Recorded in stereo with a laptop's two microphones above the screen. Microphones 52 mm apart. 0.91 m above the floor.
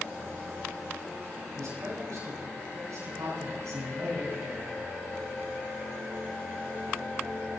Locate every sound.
1.6 s a man speaking: 80° right, 9 m; by 5.2 s 85° right, 11.5 m